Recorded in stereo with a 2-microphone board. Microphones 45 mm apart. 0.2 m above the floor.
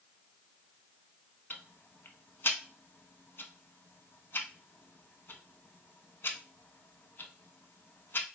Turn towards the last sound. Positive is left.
turn(degrees=60)  # may be behind; listen again after turning